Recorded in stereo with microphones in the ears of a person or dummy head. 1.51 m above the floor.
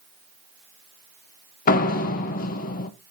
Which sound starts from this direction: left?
A door slam, at 1.7 s.